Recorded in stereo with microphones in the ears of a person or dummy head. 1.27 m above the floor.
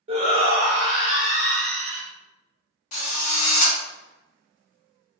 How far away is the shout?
About 0.6 m.